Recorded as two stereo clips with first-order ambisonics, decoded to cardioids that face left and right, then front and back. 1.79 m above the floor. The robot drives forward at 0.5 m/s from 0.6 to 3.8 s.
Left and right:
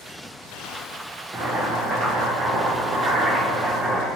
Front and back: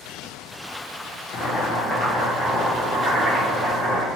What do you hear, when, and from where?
1.3 s boiling: 35° right, 1.0 m; by 4.0 s 150° right, 1.0 m